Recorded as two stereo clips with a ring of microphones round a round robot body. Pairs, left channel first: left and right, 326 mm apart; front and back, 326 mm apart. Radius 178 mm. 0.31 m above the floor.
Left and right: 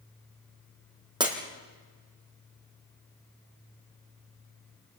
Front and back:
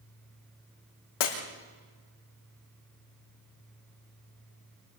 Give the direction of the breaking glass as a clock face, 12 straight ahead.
12 o'clock.